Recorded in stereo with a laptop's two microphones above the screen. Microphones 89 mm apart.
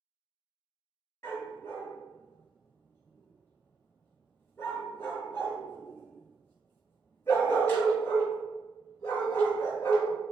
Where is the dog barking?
30° left (ahead or behind), 1.0 m.